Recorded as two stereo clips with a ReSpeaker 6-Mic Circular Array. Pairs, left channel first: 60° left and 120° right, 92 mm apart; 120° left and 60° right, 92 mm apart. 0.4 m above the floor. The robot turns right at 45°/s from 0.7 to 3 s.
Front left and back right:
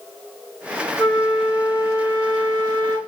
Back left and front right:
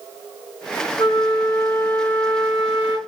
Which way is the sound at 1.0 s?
140° left.